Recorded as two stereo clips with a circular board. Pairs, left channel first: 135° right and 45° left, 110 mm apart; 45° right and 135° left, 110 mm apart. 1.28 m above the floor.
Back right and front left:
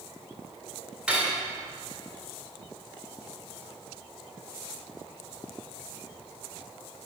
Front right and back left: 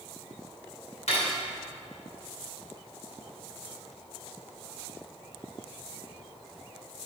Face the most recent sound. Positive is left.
turn(degrees=-35)